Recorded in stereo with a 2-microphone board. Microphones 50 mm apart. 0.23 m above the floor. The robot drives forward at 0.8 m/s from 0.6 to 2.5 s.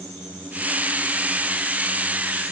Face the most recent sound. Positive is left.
No sound to turn to.